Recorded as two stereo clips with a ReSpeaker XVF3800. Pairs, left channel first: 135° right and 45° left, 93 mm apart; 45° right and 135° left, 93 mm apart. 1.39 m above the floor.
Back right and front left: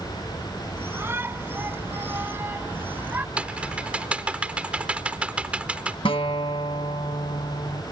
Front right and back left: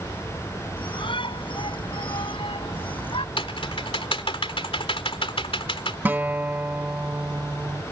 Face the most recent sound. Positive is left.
turn(degrees=-155)